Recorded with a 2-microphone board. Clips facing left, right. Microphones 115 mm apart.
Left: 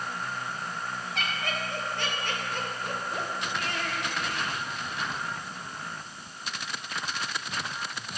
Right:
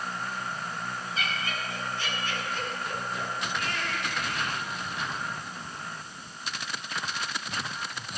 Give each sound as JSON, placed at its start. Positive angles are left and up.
{"t": 1.1, "sound": "laughter", "side_deg": 65, "distance_m": 6.5}